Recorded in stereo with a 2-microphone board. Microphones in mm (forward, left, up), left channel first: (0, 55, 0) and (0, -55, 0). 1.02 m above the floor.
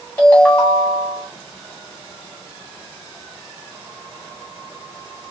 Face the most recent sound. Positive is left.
turn(degrees=25)  # may be behind; listen again after turning